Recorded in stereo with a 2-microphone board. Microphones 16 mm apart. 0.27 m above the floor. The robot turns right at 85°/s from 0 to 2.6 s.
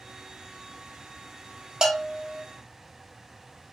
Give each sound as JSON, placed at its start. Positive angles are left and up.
{"t": 1.8, "sound": "a bell", "azimuth_deg": -90, "distance_m": 0.6}